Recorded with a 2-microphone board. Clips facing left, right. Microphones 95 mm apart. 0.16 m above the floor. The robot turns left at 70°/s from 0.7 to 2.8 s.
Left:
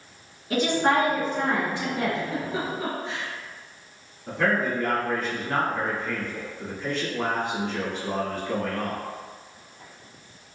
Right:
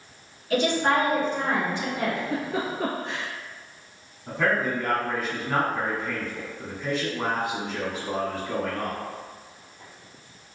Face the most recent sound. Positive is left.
turn(degrees=-5)  # may be behind; listen again after turning